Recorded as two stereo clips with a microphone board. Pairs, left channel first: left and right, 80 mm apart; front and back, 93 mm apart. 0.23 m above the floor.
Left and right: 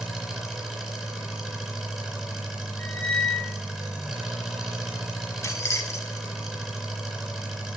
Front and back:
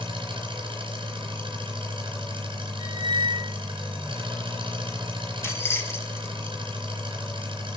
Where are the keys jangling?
50° left, 1.1 m.